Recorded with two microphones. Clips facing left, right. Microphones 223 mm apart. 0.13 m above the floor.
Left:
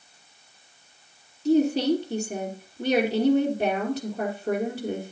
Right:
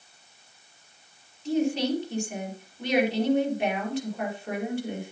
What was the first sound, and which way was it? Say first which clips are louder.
A woman speaking: left 5 dB; 40° left (ahead or behind).